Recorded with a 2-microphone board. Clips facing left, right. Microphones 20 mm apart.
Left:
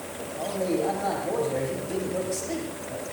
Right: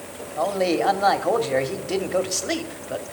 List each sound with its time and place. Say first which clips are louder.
0.4 s a man speaking: right 6 dB; 60° right (ahead or behind), 1.6 m